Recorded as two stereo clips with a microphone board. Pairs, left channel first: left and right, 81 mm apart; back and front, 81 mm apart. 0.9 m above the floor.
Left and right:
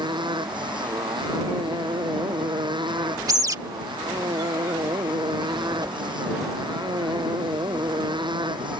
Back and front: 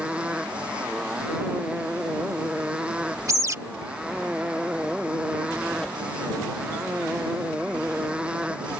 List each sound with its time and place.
0.0 s a motorcycle: 80° right
3.3 s a bird: 50° right
5.8 s a whoosh: 105° right